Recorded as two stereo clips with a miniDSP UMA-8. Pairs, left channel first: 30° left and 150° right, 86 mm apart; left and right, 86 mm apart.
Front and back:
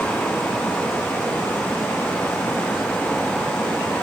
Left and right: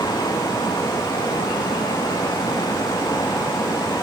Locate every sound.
Only background noise.